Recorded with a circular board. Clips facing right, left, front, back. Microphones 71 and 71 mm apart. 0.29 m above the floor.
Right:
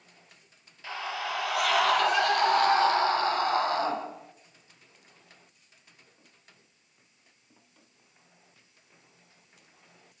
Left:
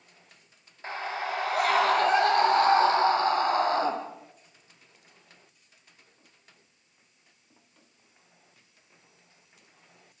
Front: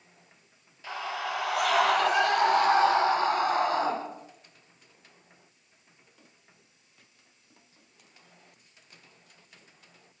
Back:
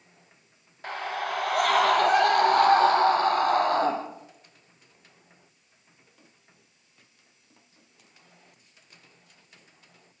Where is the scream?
145° left, 5 m; by 3.9 s 150° left, 9.5 m.